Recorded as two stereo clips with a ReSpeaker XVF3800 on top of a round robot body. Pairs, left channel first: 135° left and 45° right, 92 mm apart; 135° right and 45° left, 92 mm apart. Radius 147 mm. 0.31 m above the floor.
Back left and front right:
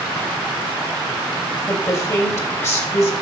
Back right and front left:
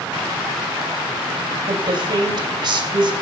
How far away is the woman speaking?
About 3 m.